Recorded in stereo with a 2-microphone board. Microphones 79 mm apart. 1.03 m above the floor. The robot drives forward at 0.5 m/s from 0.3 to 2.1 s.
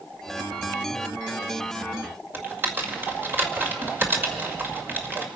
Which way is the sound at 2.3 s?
25° right (ahead or behind).